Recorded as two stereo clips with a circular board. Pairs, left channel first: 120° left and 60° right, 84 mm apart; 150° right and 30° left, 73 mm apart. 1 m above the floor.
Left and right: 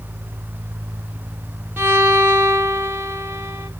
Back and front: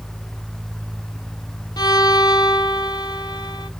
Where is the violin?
125° right, 0.9 m.